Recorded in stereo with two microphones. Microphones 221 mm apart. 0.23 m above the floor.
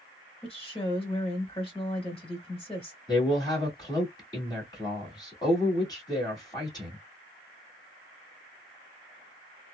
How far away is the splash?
I don't hear a splash.